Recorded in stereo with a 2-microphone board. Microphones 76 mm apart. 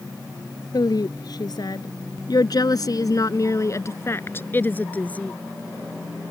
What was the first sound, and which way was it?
A woman speaking, 60° left (ahead or behind).